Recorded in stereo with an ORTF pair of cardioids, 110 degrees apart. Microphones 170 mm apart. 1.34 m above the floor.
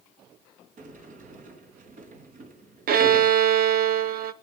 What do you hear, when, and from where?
0.8 s a sliding door: 50° right, 4 m
2.9 s a violin: 65° right, 1.2 m